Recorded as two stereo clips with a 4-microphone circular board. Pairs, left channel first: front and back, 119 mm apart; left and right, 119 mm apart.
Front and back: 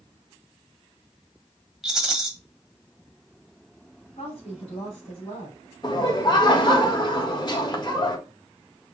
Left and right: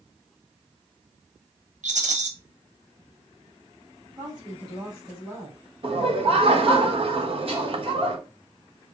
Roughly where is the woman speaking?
Ahead right.